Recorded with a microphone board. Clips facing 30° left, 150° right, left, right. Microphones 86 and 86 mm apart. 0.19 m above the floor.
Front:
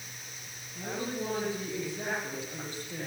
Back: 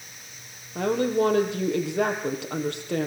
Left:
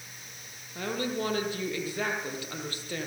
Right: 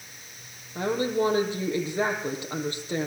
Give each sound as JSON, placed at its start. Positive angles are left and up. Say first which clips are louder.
{"t": 0.8, "sound": "a woman speaking", "louder": "back 13 dB, right 6 dB", "azimuth_deg": -160, "distance_m": 5.5}